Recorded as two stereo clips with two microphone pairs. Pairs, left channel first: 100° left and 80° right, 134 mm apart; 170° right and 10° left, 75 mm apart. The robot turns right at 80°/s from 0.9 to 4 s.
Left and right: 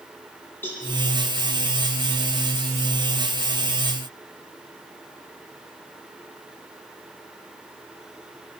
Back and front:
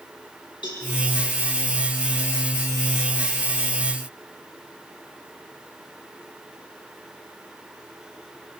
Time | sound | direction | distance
0.6 | a cowbell | 175° left | 8 m